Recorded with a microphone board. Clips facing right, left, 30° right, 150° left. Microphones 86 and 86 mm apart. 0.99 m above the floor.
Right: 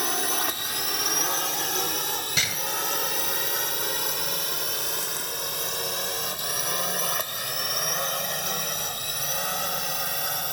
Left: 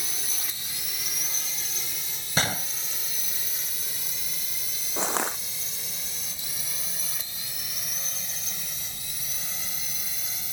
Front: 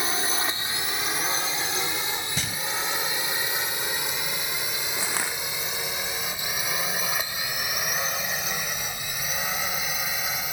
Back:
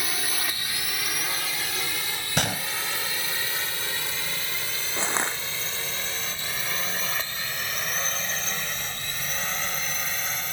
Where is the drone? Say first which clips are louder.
Right 13 dB, front 4 dB; 95° right; by 10.5 s 110° right.